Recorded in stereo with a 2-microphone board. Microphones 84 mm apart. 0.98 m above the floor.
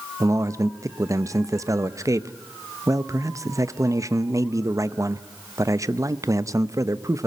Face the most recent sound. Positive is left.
turn(degrees=-40)  # may be behind; listen again after turning